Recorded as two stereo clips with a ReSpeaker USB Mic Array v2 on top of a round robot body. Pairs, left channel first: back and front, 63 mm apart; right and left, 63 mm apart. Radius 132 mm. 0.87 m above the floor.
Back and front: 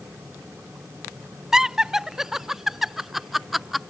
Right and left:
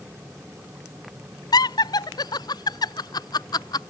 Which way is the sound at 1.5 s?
80° right.